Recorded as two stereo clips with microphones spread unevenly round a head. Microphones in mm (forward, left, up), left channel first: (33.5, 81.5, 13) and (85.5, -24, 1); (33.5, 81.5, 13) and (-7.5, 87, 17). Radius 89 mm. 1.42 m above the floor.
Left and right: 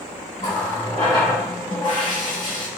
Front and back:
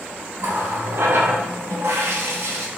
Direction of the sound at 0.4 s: Straight behind.